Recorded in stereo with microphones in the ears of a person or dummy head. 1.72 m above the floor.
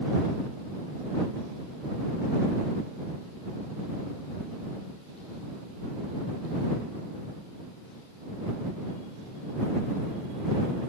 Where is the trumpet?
I don't hear a trumpet.